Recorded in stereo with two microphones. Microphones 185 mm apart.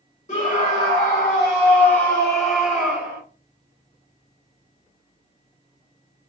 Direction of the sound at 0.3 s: 35° left (ahead or behind).